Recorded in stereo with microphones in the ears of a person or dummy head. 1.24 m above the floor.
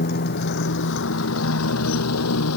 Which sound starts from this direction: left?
A motorcycle, at 0.0 s.